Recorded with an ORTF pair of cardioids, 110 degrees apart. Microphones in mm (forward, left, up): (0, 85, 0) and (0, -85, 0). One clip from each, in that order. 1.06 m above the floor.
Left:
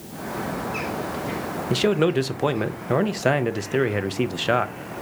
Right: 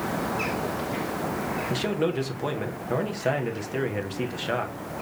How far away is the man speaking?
About 0.6 m.